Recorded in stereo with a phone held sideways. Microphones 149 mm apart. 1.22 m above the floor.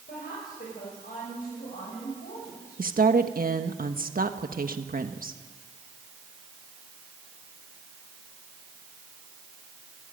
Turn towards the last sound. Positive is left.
turn(degrees=-75)  # may be behind; listen again after turning